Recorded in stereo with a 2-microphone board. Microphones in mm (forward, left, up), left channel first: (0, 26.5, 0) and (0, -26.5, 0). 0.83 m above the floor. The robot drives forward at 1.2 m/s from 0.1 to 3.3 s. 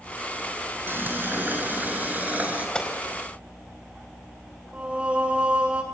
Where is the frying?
45° right (ahead or behind), 5 m; by 2.6 s 30° right (ahead or behind), 7 m.